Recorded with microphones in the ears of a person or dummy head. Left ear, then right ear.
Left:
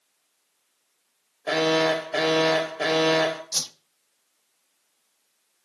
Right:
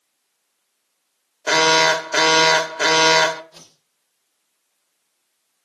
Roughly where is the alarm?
Right.